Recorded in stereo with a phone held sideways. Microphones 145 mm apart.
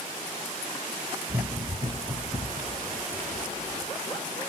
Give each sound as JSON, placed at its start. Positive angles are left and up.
{"t": 1.3, "sound": "running footsteps", "side_deg": -30, "distance_m": 2.0}